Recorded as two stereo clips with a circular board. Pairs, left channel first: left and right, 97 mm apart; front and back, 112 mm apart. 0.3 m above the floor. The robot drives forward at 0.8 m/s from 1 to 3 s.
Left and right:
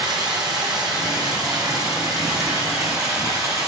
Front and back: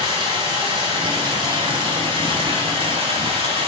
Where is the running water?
135° right, 6.5 m; by 3.7 s 145° right, 8 m.